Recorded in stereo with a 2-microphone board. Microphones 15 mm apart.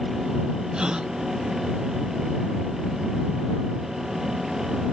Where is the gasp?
65° right (ahead or behind).